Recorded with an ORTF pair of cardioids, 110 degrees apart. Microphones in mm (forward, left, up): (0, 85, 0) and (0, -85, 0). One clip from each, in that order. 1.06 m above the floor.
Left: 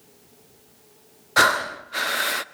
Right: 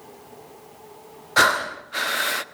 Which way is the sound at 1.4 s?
5° left.